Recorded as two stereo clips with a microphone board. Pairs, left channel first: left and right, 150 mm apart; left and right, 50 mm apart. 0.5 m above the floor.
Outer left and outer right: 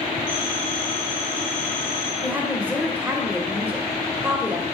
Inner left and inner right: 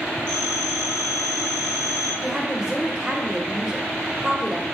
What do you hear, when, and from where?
0.3 s a phone ringing: 15° left (ahead or behind), 3 m
2.2 s a woman speaking: 10° right (ahead or behind), 2 m